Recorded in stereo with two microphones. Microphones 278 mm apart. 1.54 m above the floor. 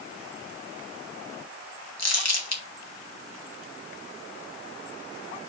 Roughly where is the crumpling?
Left.